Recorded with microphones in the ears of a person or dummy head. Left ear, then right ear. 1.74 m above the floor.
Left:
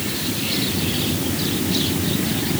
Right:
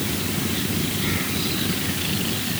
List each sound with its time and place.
Only background noise.